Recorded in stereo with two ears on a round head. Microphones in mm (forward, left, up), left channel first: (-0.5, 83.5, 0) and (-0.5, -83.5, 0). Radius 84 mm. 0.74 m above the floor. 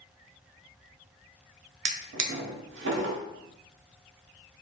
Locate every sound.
1.9 s a drawer: 65° right (ahead or behind), 0.5 m